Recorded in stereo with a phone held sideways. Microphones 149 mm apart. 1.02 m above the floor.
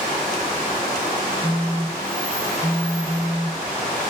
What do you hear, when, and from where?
1.4 s a phone buzzing: 45° left (ahead or behind), 1.0 m